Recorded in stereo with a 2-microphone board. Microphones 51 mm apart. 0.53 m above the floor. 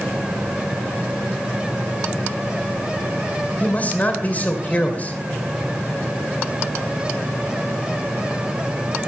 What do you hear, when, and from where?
3.6 s a man speaking: 30° left (ahead or behind), 2 m